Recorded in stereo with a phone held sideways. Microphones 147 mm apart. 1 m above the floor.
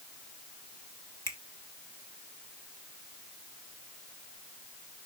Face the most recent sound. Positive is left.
turn(degrees=20)  # may be behind; listen again after turning